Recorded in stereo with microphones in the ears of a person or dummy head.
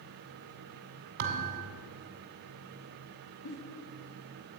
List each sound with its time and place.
1.2 s a thud: 50° right (ahead or behind), 1.8 m
3.5 s a giggle: 75° left (ahead or behind), 1.9 m